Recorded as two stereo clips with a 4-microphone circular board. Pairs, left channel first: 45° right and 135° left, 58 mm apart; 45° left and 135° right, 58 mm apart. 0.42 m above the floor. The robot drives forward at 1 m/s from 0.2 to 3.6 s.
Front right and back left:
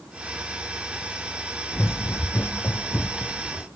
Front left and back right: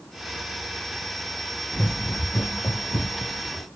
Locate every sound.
1.7 s running footsteps: 5° right, 1.0 m; by 3.7 s 30° left, 1.6 m